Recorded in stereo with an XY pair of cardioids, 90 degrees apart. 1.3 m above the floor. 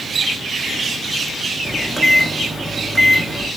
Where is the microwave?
5° right, 0.8 m.